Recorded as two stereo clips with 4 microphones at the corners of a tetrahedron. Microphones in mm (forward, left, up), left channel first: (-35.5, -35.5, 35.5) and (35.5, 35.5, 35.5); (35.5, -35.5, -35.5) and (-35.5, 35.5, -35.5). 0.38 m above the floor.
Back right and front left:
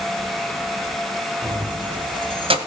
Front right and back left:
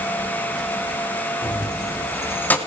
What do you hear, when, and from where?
1.4 s keys jangling: 5° right, 2.5 m; by 2.6 s 30° left, 1.4 m